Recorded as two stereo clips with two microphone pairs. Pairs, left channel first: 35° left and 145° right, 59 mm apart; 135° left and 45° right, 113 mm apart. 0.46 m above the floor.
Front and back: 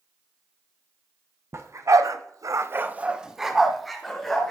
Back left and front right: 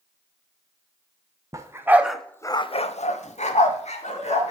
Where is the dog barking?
110° right, 1.0 m; by 4.5 s 115° left, 1.9 m.